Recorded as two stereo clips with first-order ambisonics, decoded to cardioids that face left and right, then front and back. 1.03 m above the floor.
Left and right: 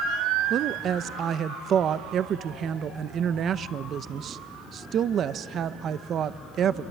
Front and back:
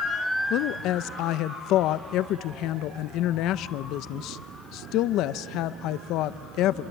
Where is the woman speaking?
35° right, 0.6 m.